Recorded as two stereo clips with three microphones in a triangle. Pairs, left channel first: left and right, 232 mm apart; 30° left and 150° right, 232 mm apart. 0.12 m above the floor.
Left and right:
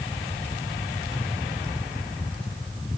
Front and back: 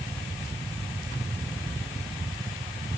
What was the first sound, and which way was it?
Only background noise.